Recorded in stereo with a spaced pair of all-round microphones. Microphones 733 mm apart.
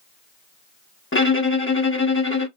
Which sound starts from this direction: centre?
A violin, at 1.1 s.